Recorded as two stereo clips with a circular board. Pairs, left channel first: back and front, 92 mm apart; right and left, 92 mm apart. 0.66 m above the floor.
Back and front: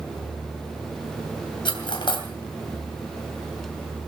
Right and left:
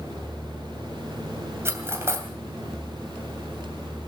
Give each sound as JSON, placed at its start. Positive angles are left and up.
{"t": 1.6, "sound": "cutlery clinking", "azimuth_deg": 150, "distance_m": 2.5}